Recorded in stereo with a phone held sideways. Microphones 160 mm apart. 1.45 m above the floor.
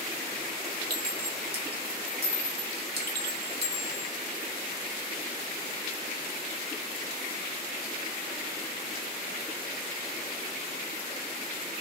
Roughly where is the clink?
Right.